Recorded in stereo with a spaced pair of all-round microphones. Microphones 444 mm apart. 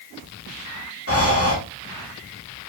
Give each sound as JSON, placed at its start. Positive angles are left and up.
{"t": 1.1, "sound": "breathing", "side_deg": 30, "distance_m": 0.8}